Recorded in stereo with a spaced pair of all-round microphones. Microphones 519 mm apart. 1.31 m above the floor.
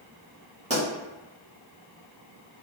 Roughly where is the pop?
Centre.